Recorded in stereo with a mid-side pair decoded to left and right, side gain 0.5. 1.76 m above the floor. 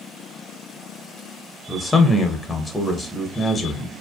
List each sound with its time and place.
1.7 s a man speaking: 15° left, 0.7 m